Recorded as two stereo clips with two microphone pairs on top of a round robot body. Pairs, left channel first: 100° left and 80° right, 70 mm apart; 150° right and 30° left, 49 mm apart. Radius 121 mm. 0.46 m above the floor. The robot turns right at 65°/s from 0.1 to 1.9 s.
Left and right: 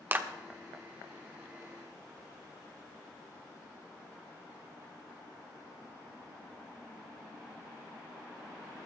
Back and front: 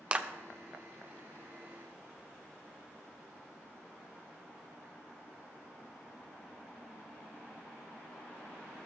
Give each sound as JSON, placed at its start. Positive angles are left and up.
{"t": 0.1, "sound": "a clap", "azimuth_deg": -20, "distance_m": 1.2}